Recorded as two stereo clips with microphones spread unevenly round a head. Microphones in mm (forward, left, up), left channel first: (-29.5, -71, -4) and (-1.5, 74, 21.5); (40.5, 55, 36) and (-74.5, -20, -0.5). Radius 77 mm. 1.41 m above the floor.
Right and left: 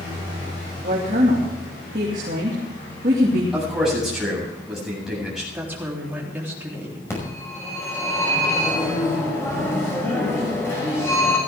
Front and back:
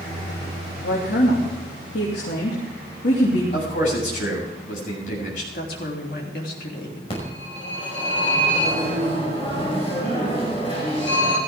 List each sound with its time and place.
0.8 s a woman speaking: 35° left, 2.5 m
3.5 s a man speaking: 10° right, 8 m
5.5 s a woman speaking: straight ahead, 3.5 m
7.1 s a phone ringing: 25° right, 5.5 m